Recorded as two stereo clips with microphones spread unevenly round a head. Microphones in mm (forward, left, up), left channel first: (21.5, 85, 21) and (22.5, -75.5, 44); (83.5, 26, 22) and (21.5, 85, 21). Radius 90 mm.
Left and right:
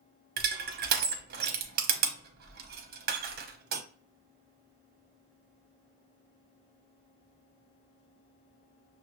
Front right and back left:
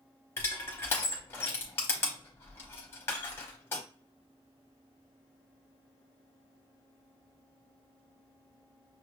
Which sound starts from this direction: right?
Crushing, at 0.4 s.